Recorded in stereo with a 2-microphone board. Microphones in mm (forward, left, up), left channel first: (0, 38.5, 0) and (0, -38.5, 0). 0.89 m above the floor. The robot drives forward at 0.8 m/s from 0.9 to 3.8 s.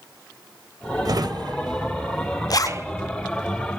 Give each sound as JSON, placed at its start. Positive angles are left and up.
{"t": 1.1, "sound": "a drawer", "side_deg": -50, "distance_m": 1.0}
{"t": 2.5, "sound": "a zipper", "side_deg": 50, "distance_m": 0.7}